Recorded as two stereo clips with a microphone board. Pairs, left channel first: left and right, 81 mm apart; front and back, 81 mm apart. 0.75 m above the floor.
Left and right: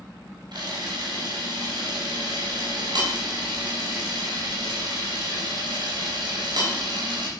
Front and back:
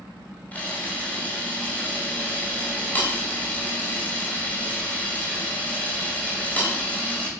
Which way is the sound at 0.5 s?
70° right.